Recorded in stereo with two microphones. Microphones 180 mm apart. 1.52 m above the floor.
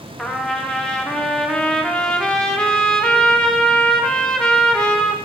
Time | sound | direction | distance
0.2 | a trumpet | 5° left (ahead or behind) | 0.6 m